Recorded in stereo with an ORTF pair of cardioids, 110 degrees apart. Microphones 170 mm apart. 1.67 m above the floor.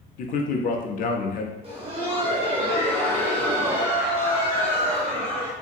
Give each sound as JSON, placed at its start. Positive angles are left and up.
{"t": 0.2, "sound": "a man speaking", "azimuth_deg": 55, "distance_m": 0.6}
{"t": 1.6, "sound": "laughter", "azimuth_deg": -35, "distance_m": 1.6}